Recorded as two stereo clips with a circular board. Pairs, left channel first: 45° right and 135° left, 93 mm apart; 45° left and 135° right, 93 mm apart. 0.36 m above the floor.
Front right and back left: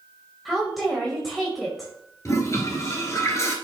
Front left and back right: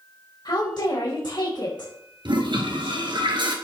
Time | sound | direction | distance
0.5 | a woman speaking | 45° left | 1.7 m
2.2 | a toilet flushing | 100° right | 1.5 m